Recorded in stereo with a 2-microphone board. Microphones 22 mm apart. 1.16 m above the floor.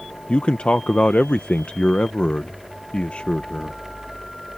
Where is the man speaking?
65° left (ahead or behind).